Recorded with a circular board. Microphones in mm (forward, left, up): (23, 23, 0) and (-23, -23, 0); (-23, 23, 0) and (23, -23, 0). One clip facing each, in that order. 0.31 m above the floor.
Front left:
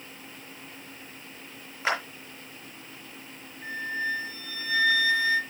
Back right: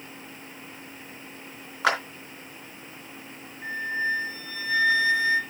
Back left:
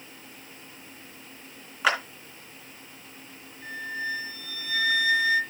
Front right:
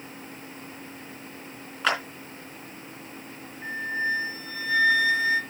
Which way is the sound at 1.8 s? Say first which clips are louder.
Back right 4 dB, back left 1 dB; 140° right.